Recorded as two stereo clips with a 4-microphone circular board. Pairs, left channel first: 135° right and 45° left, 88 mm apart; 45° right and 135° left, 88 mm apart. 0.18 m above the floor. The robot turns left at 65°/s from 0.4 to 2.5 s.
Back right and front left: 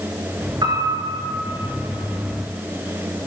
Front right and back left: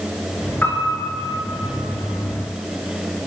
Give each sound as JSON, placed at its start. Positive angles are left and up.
{"t": 0.6, "sound": "a piano", "azimuth_deg": 25, "distance_m": 1.3}